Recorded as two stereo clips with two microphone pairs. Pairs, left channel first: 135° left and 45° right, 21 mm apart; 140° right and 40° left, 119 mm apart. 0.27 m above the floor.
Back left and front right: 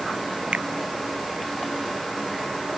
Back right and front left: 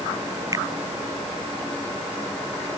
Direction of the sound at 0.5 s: 20° right.